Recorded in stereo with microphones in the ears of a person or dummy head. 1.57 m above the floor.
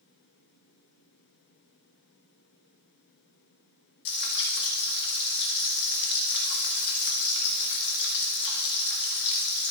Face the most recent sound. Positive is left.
turn(degrees=60)  # may be behind; listen again after turning